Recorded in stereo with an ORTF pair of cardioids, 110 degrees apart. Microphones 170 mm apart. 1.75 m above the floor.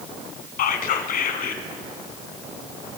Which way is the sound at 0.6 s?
50° left.